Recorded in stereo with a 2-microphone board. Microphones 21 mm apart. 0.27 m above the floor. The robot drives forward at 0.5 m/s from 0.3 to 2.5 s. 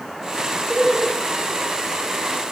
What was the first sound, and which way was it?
Laughter, 5° left (ahead or behind).